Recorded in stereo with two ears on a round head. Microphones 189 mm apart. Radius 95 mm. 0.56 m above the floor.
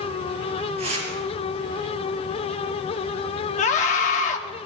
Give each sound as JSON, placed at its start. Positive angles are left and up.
{"t": 0.8, "sound": "tearing paper", "side_deg": -30, "distance_m": 6.5}
{"t": 3.6, "sound": "a scream", "side_deg": 35, "distance_m": 0.7}